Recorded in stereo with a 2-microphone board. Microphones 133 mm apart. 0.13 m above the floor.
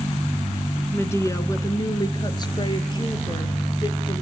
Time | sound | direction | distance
0.9 | a woman speaking | 20° left (ahead or behind) | 1.0 m